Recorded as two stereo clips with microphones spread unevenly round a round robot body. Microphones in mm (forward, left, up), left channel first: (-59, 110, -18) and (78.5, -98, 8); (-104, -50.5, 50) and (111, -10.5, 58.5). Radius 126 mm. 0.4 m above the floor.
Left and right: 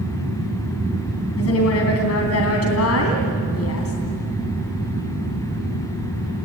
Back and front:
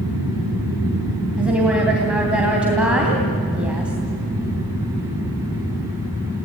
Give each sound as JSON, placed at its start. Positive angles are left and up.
{"t": 1.4, "sound": "a woman speaking", "azimuth_deg": 95, "distance_m": 3.0}